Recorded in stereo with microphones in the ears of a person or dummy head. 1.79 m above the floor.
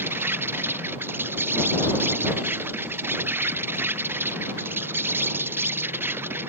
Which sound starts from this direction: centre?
An insect, at 0.0 s.